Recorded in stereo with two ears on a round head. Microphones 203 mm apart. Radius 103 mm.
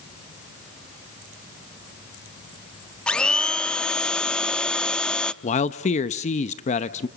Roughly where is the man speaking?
Left.